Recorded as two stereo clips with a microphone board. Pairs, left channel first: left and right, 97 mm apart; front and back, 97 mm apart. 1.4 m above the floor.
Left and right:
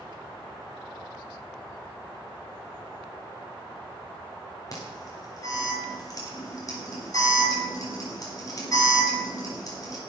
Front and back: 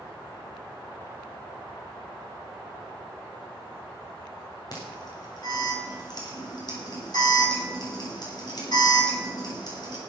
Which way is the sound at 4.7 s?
40° left.